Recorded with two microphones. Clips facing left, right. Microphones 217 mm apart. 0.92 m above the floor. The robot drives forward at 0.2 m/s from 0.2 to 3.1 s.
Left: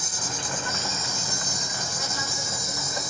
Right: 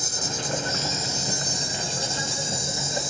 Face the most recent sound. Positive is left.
turn(degrees=-30)  # may be behind; listen again after turning